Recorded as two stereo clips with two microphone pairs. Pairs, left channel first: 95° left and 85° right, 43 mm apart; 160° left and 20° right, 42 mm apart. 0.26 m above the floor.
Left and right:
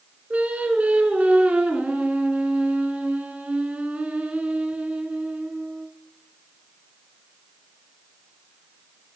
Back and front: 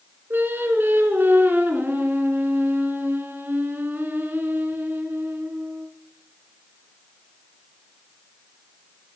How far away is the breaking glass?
No breaking glass in this recording.